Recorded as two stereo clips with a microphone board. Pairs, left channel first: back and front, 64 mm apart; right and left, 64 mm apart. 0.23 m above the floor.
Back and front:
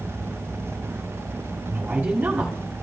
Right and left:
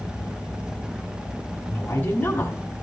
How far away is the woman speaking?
About 1.4 m.